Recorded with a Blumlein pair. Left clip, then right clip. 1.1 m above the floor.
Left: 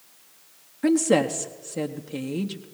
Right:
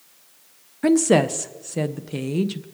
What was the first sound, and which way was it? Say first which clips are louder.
A woman speaking: right 3 dB; 15° right.